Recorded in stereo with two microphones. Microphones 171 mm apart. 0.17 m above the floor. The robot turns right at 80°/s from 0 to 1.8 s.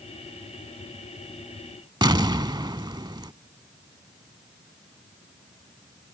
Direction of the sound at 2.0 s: 25° right (ahead or behind).